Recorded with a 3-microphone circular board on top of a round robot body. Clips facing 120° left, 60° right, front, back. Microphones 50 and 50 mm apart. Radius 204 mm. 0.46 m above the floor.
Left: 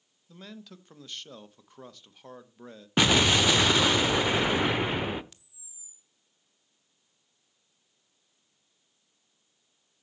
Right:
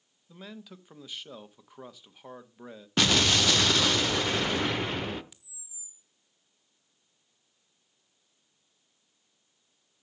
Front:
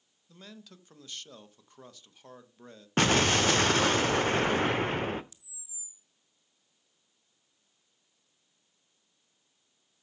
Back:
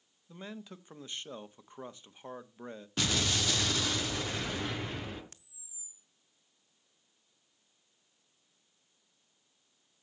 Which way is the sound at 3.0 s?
45° left.